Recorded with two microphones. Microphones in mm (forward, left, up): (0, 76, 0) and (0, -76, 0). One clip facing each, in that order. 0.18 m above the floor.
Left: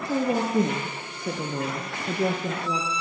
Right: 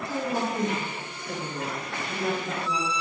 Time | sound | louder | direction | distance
0.1 | a woman speaking | left 6 dB | 50° left (ahead or behind) | 4 m